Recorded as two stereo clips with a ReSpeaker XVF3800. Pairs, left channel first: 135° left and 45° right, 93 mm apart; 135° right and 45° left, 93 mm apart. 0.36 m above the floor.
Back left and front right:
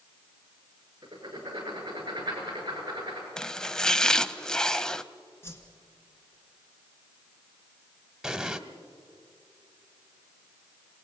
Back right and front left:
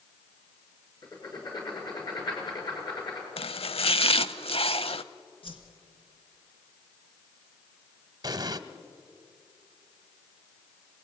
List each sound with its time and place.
1.0 s writing: 90° right, 6.5 m
3.4 s chopping: 140° right, 0.7 m
5.4 s a whoosh: 160° right, 3 m
8.2 s an explosion: 40° left, 1.2 m